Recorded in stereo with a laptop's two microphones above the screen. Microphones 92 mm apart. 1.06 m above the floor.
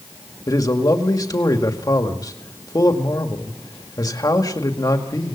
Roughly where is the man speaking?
Left.